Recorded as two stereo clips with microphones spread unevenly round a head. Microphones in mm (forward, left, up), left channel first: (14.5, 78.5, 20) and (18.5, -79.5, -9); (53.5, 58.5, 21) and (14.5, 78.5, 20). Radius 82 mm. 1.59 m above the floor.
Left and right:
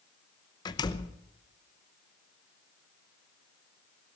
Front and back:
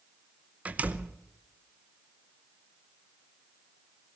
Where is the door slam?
115° left, 0.7 m.